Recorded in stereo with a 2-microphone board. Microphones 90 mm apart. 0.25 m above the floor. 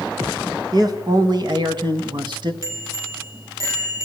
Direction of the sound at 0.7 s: 45° right (ahead or behind).